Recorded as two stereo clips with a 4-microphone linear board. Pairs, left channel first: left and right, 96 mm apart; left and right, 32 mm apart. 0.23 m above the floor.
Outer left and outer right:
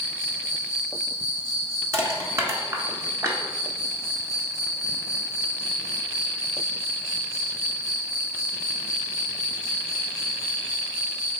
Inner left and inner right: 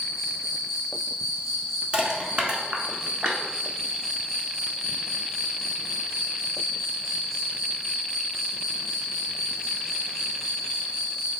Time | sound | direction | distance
0.0 | an insect | centre (ahead or behind) | 2.0 m
1.9 | crushing | 30° right (ahead or behind) | 0.9 m